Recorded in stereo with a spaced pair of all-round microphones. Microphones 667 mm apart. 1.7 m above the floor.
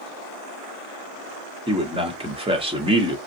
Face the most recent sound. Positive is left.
turn(degrees=-10)  # may be behind; listen again after turning